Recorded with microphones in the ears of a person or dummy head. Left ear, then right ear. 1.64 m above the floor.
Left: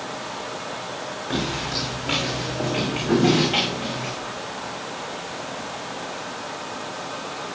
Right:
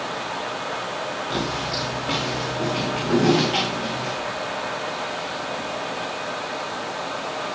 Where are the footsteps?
15° left (ahead or behind), 6.5 m; by 4.1 s centre (ahead or behind), 8.5 m.